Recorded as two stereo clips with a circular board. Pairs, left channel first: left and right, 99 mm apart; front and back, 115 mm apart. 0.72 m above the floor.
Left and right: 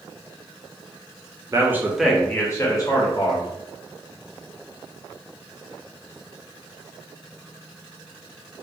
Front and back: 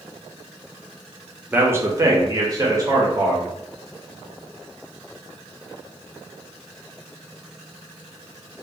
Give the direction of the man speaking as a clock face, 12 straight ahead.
4 o'clock.